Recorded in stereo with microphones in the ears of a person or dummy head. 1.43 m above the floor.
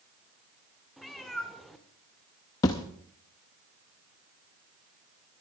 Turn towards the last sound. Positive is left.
turn(degrees=15)  # may be behind; listen again after turning